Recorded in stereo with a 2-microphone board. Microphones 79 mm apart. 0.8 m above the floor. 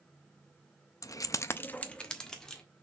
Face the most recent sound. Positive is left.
turn(degrees=5)  # may be behind; listen again after turning